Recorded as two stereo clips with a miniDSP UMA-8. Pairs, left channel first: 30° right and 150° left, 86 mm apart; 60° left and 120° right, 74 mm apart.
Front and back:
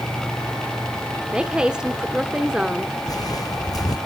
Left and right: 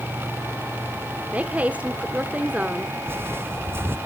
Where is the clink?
No clink in this recording.